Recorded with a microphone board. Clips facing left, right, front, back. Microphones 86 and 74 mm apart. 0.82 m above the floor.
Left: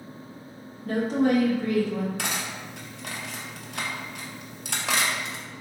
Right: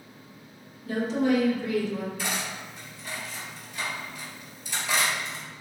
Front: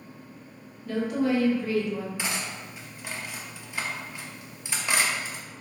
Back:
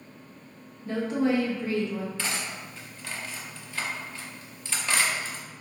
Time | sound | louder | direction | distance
0.8 | a woman speaking | left 2 dB, even | 120° left | 0.8 m
2.2 | cutlery clinking | left 1 dB, even | 75° left | 0.5 m